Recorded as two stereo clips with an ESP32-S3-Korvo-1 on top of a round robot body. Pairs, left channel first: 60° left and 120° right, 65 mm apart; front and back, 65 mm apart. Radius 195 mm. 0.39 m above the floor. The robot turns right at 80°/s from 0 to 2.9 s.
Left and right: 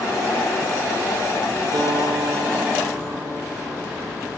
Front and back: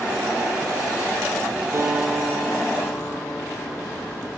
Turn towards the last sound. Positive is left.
turn(degrees=-40)